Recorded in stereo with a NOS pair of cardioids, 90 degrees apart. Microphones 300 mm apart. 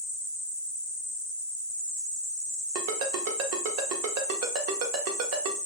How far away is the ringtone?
About 0.8 m.